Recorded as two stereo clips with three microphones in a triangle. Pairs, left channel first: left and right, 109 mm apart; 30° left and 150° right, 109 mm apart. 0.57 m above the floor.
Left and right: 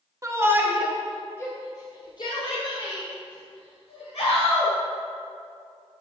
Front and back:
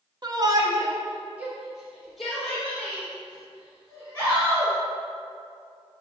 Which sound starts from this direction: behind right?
A shout, at 0.2 s.